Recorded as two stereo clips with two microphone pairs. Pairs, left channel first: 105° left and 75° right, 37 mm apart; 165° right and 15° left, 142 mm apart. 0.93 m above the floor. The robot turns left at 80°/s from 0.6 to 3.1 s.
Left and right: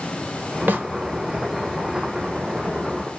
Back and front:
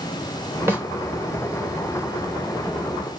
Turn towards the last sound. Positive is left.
turn(degrees=110)